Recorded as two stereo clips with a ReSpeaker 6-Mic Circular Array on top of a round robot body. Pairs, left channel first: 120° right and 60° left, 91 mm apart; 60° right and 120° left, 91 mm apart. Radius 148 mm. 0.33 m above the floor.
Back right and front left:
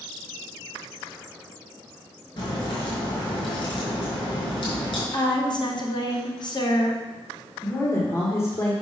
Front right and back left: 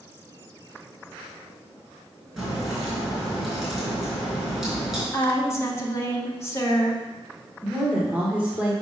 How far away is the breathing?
I don't hear breathing.